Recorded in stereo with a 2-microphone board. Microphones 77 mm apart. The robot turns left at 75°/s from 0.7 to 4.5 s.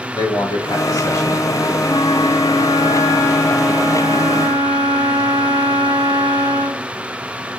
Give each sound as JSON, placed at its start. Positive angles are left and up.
{"t": 0.1, "sound": "a man speaking", "azimuth_deg": 75, "distance_m": 1.3}
{"t": 1.8, "sound": "a flute", "azimuth_deg": 140, "distance_m": 0.6}